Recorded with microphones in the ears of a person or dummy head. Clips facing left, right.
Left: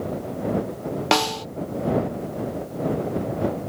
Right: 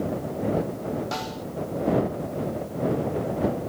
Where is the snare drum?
85° left.